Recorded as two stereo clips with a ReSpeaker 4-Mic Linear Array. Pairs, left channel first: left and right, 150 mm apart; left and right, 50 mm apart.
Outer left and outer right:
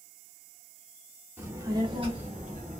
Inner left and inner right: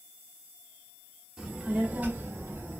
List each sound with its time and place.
1.4 s a child speaking: 15° right (ahead or behind), 1.2 m; by 2.8 s 60° right (ahead or behind), 1.0 m